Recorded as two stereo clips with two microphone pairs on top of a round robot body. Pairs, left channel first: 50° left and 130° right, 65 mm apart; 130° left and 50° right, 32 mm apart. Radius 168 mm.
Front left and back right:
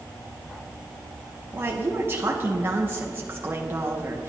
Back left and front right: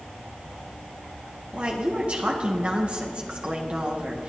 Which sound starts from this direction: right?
A woman speaking, at 1.5 s.